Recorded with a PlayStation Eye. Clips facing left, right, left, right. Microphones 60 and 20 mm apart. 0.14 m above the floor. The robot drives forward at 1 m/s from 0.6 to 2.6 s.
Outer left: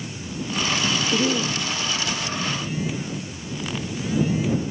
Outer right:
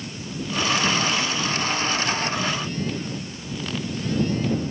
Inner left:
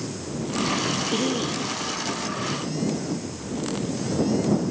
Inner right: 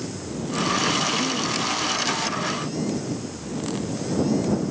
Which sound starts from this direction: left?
A cough, at 1.1 s.